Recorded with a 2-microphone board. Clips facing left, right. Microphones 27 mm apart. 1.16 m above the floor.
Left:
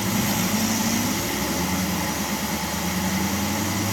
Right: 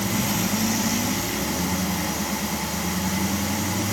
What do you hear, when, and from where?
Only background noise.